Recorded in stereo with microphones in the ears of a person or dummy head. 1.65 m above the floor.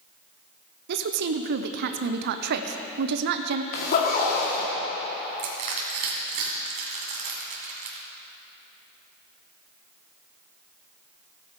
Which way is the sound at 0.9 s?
65° right (ahead or behind).